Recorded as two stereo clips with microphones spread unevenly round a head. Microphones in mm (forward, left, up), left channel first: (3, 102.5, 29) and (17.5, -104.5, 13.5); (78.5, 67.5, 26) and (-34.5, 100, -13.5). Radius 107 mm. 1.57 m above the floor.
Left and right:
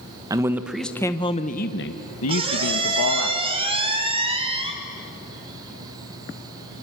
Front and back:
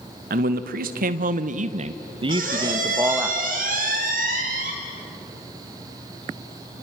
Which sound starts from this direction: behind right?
A squeak, at 2.3 s.